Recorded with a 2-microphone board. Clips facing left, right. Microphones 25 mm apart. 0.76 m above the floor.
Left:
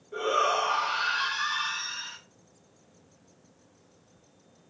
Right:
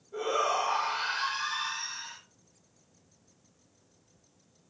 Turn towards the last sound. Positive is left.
turn(degrees=50)  # may be behind; listen again after turning